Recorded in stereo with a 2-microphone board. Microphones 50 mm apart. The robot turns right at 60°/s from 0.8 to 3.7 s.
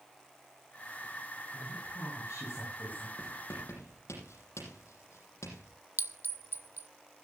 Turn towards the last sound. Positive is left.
turn(degrees=-50)  # may be behind; listen again after turning